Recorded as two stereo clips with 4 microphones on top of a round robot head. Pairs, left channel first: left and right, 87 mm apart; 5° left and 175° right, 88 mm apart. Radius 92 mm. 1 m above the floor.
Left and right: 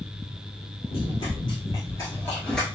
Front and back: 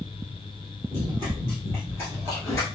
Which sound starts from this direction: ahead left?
Running footsteps, at 0.9 s.